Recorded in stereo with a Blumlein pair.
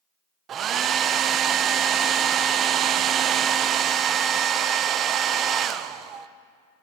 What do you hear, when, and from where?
0.5 s a hair dryer: 30° right, 0.8 m